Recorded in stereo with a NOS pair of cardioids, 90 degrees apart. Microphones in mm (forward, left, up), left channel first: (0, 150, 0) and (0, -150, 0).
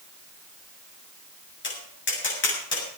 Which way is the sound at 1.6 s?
40° left.